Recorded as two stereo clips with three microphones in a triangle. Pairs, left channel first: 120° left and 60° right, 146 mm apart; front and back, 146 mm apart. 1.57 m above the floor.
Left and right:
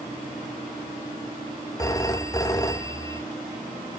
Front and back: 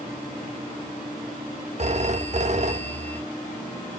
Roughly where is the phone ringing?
Behind.